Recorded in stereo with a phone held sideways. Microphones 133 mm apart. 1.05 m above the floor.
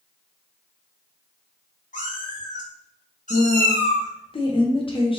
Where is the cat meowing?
70° left (ahead or behind), 1.6 m; by 4.1 s 55° left (ahead or behind), 0.6 m.